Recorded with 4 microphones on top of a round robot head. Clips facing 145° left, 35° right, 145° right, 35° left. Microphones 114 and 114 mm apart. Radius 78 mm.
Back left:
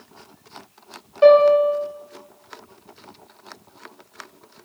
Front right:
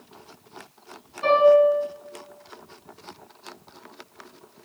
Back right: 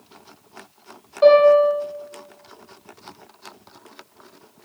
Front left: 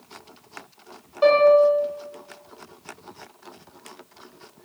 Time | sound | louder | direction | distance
1.2 | a piano | back left 4 dB, back right 3 dB | 135° left | 2.5 m